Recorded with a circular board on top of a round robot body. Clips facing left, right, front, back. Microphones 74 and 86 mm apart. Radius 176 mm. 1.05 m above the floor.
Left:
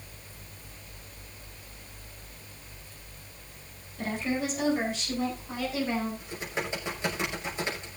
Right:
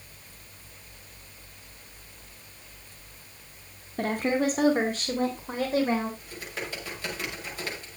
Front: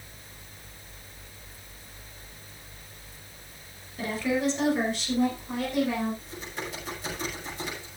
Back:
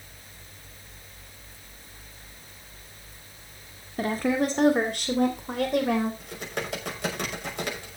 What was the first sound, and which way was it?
A woman speaking, 130° right.